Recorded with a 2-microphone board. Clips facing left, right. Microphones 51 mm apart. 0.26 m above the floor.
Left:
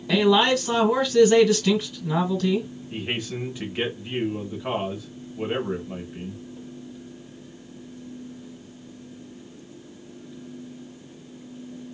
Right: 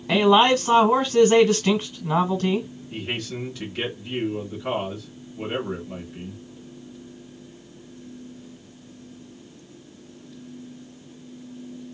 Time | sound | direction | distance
0.1 | a man speaking | 40° right (ahead or behind) | 1.3 m
2.9 | a man speaking | 25° left (ahead or behind) | 1.4 m